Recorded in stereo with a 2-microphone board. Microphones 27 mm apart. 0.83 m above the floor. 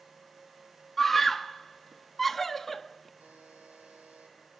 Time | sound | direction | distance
1.0 | a scream | 10° left (ahead or behind) | 1.3 m
3.2 | a buzzer | 70° right (ahead or behind) | 7 m